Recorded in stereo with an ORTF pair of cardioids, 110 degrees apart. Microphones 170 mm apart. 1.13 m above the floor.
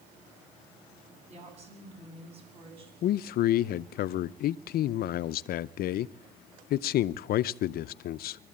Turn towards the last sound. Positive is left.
turn(degrees=65)